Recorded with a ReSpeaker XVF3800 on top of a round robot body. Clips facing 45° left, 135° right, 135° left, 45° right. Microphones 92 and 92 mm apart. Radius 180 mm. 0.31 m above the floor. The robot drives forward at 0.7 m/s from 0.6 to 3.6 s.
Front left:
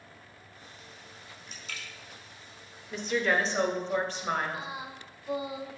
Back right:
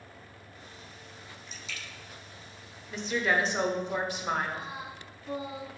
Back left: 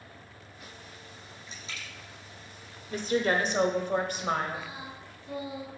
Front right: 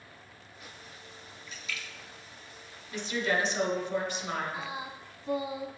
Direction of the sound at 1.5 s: 75° left.